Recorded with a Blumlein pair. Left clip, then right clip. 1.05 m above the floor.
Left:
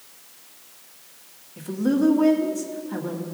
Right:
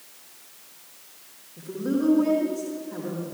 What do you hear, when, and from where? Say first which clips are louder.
1.6 s a woman speaking: left 4 dB; 65° left, 1.9 m